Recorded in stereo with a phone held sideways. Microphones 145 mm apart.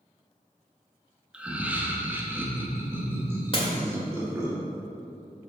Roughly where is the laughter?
Centre.